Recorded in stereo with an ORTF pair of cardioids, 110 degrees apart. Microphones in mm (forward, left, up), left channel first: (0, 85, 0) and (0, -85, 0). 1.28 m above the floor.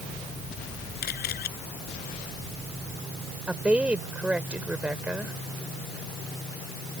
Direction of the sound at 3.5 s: 5° right.